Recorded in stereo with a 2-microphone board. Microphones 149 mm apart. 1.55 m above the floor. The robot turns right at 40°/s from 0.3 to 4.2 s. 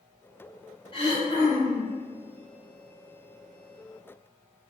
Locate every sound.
0.9 s throat clearing: 75° left, 1.5 m; by 1.9 s 115° left, 1.5 m